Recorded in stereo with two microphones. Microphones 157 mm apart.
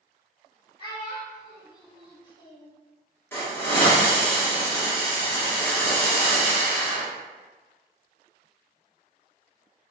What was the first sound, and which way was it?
A child speaking, 30° left (ahead or behind).